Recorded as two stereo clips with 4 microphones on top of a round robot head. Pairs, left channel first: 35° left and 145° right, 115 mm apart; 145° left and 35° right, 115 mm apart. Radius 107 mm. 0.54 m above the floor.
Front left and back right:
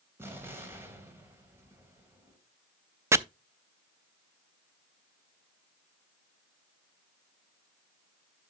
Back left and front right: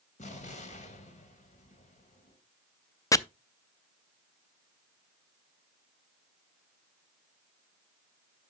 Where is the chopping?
170° left, 0.6 m.